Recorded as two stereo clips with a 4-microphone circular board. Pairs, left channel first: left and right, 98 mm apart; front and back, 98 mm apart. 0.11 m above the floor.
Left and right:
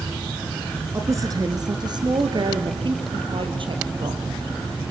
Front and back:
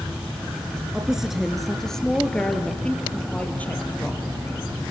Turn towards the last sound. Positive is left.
turn(degrees=-75)